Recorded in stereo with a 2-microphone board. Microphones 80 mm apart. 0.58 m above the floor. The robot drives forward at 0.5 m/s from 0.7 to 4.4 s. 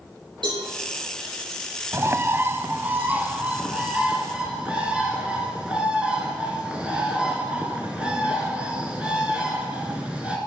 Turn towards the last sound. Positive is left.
turn(degrees=-15)  # may be behind; listen again after turning